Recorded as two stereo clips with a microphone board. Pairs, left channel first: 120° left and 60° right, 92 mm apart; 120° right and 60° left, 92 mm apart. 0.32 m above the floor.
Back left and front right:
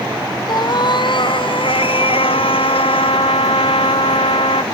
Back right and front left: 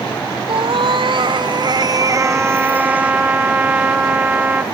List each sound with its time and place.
0.5 s a cat meowing: 80° left; by 3.1 s 140° left
2.1 s a trumpet: 135° left